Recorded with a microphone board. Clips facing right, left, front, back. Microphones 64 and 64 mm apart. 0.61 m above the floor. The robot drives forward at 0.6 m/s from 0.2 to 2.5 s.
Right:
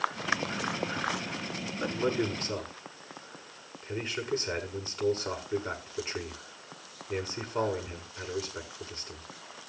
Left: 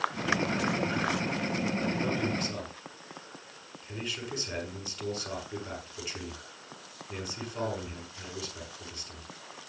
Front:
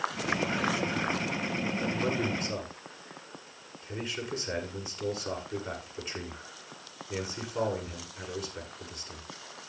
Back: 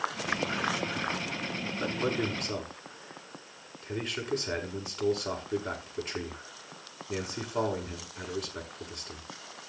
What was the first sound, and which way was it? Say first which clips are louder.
A man speaking: right 1 dB, back 2 dB; 145° right.